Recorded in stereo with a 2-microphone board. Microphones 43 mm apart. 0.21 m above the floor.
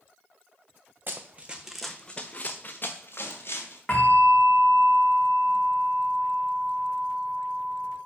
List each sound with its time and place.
1.1 s running footsteps: 45° right (ahead or behind), 0.8 m; by 3.8 s 60° left (ahead or behind), 1.7 m
3.9 s a bell: 15° left (ahead or behind), 2.5 m